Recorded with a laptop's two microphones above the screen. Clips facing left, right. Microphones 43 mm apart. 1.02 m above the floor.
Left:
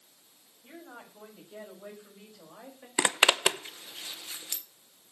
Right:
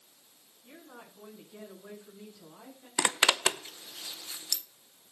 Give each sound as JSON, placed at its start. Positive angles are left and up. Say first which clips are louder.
{"t": 0.6, "sound": "a woman speaking", "louder": "left 3 dB", "side_deg": 80, "distance_m": 7.5}
{"t": 3.0, "sound": "a zipper", "louder": "left 2 dB", "side_deg": 25, "distance_m": 0.7}